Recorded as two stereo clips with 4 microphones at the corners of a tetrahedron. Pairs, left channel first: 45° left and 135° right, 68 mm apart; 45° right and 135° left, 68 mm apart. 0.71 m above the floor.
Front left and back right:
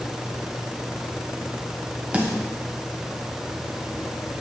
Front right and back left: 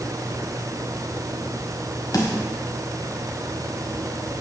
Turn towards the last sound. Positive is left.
turn(degrees=-65)